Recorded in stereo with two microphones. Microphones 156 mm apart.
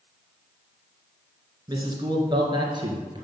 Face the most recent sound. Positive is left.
turn(degrees=-30)  # may be behind; listen again after turning